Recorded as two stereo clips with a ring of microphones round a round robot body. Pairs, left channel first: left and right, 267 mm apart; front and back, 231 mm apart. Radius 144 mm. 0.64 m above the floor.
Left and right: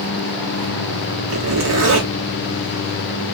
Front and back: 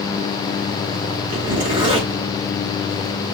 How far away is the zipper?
About 1.4 m.